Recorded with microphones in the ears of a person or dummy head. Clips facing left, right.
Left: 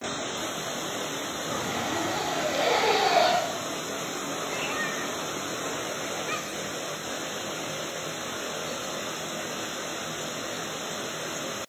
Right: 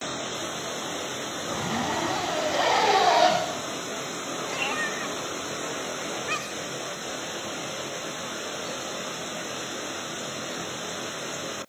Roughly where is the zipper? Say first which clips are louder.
Right 2 dB; right.